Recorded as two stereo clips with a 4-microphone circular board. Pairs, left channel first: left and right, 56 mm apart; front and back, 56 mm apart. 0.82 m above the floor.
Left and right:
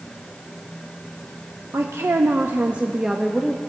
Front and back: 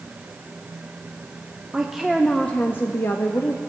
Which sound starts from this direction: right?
A woman speaking, at 1.7 s.